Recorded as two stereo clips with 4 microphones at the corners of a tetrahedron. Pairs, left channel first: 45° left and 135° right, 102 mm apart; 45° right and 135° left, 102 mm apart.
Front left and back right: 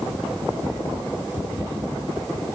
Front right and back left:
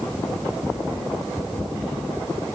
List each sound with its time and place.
Only background noise.